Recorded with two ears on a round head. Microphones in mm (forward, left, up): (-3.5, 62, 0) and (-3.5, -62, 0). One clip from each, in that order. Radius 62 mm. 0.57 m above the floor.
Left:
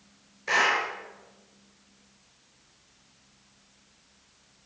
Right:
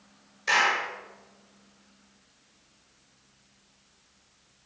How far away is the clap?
About 6 m.